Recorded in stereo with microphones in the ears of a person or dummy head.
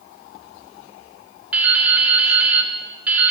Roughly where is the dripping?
Centre.